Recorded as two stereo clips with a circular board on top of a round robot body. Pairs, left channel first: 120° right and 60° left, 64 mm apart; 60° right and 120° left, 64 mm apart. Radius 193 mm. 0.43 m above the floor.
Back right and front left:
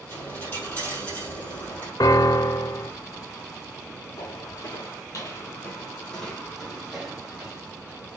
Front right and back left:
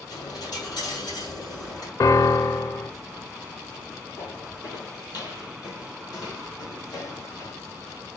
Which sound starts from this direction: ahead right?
A dropped coin, at 0.1 s.